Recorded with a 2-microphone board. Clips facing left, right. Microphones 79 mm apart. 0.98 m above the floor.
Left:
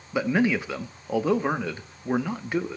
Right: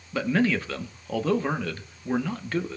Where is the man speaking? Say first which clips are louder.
Left 1 dB; 15° left (ahead or behind), 0.9 m.